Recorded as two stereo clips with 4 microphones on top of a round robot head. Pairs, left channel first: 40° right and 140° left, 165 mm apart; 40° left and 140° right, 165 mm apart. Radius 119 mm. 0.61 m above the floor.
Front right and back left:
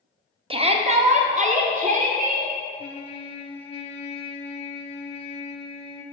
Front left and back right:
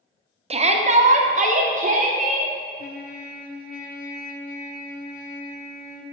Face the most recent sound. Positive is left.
turn(degrees=15)